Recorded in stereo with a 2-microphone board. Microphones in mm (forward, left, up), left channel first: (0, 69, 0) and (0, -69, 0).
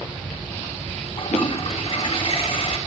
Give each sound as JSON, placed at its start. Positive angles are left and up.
{"t": 1.2, "sound": "a toilet flushing", "side_deg": 45, "distance_m": 0.9}